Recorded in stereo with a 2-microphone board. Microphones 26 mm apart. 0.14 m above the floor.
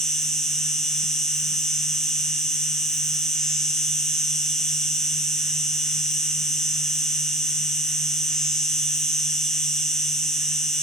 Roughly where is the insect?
Left.